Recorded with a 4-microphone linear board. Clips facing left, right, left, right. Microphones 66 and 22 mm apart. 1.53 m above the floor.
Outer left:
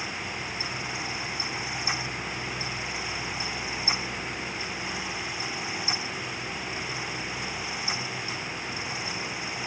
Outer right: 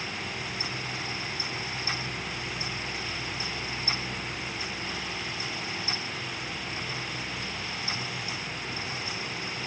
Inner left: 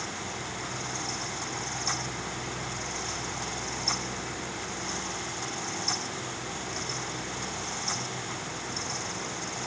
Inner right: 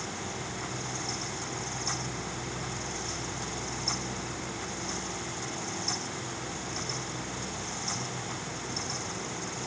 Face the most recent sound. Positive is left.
No sound to turn to.